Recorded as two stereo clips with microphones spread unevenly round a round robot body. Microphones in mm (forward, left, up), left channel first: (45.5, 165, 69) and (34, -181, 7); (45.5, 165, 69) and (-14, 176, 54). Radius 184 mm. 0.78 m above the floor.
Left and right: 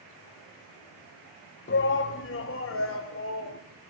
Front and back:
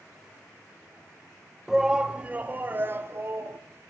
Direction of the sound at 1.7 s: 125° left.